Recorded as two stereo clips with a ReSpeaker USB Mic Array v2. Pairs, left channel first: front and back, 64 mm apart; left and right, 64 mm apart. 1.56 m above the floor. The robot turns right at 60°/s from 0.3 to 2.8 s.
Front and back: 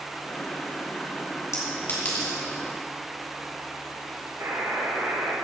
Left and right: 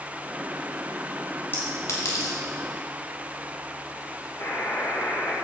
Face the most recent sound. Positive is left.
turn(degrees=130)